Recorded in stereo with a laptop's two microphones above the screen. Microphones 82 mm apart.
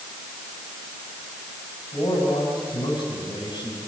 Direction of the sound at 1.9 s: 70° left (ahead or behind).